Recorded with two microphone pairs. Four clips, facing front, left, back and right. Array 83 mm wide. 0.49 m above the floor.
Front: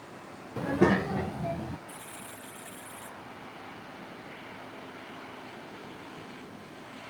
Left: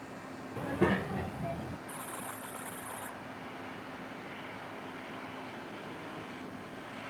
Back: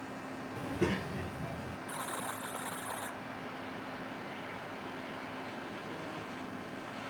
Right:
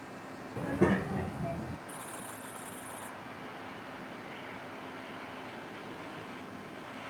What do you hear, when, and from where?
0.6 s a child speaking: 5° left
1.9 s a buzzer: 170° left